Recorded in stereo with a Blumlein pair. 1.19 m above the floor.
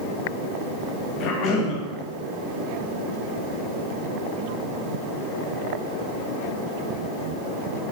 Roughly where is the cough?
Ahead left.